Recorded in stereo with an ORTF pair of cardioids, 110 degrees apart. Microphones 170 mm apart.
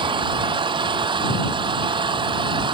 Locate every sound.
0.0 s an engine running: 30° right